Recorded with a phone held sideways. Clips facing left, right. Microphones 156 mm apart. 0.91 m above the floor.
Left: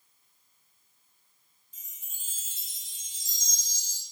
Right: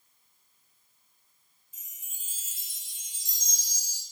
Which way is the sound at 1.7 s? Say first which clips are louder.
Even; 10° right (ahead or behind).